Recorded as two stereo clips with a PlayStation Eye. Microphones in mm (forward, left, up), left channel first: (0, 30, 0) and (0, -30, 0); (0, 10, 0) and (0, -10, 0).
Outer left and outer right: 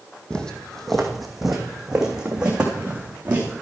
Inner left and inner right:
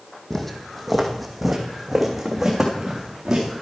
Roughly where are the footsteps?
Centre.